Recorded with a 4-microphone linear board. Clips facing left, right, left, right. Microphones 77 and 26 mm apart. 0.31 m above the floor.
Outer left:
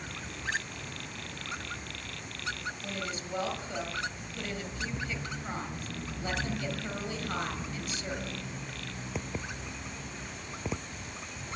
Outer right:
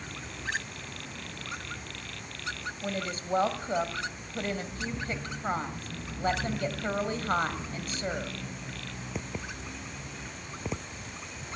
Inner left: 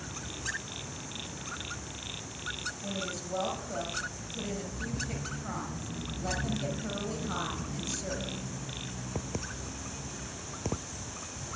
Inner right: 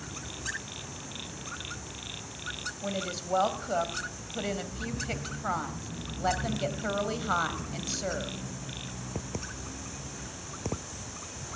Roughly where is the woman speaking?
Right.